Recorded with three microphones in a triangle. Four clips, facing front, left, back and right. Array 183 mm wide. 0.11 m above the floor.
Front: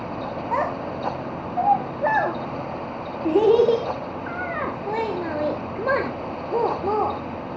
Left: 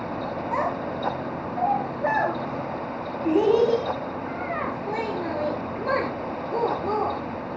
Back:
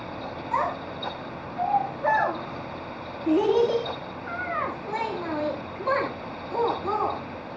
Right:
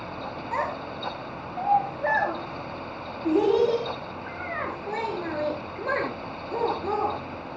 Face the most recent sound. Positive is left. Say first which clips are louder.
# left 2 dB, front 2 dB
turn(degrees=5)